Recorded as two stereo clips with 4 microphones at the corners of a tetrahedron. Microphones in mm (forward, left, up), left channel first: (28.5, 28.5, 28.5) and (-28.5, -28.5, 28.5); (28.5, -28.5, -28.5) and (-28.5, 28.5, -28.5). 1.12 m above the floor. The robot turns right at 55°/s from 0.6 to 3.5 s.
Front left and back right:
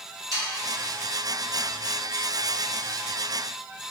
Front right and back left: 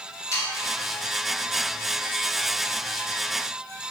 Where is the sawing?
95° right, 1.2 m.